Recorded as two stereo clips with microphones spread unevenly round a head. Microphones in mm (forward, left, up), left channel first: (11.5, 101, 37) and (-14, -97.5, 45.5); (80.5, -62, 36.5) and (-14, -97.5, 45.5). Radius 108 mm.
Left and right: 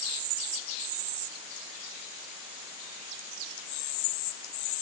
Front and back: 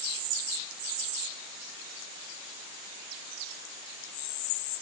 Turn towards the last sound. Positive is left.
No sound to turn to.